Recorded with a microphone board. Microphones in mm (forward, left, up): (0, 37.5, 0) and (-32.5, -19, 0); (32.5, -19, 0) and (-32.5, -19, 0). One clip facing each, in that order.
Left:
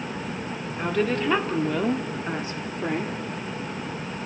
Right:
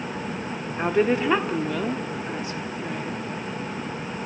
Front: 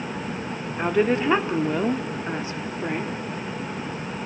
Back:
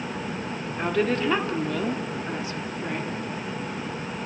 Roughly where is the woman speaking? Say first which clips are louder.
Right 3 dB, front 3 dB; right.